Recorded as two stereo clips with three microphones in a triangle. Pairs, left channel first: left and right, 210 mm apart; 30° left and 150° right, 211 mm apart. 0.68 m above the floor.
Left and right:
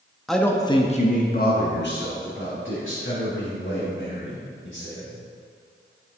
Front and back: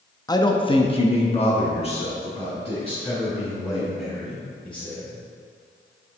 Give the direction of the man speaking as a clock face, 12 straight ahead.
12 o'clock.